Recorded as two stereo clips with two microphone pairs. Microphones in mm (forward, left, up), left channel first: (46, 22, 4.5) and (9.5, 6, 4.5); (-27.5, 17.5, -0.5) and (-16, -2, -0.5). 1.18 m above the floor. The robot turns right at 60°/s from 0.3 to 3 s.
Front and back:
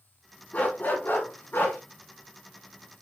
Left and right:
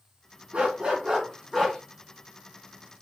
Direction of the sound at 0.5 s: 25° right.